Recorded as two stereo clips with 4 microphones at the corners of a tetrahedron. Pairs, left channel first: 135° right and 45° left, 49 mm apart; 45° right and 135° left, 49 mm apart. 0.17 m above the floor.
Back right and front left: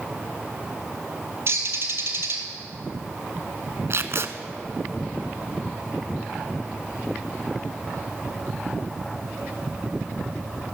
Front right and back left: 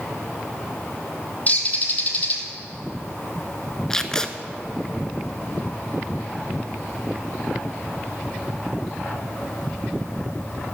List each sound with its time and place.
1.5 s a bird: 10° left, 1.5 m
3.9 s tape being pulled: 30° left, 0.7 m